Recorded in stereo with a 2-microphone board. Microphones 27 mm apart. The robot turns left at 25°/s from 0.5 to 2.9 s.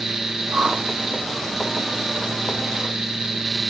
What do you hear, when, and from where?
0.5 s a whoosh: 75° right (ahead or behind), 2.5 m